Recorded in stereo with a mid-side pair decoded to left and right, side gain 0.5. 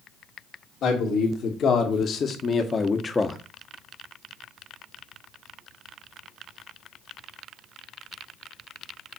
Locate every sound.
0.8 s a man speaking: 60° left, 2.5 m; by 3.4 s 20° left, 1.1 m